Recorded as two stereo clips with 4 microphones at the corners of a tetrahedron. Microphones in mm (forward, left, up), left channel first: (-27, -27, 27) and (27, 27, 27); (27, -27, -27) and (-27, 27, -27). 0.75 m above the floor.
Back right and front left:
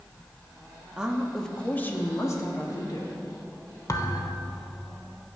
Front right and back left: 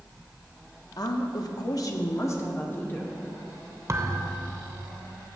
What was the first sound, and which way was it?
A woman speaking, 35° right.